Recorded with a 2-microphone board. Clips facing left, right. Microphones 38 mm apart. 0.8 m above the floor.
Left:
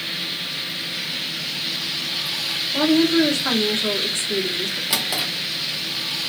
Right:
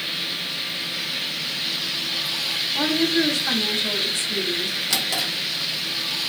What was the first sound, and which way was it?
A woman speaking, 55° left (ahead or behind).